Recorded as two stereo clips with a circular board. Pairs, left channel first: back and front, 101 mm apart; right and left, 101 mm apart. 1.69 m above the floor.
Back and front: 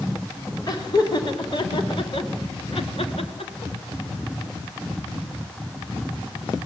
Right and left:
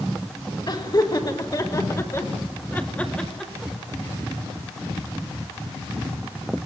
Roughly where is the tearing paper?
I don't hear tearing paper.